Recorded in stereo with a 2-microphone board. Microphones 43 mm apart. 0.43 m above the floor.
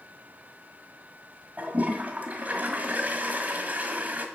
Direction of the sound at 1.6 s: 40° right (ahead or behind).